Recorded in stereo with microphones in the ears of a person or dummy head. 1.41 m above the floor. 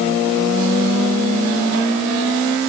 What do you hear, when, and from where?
Only background noise.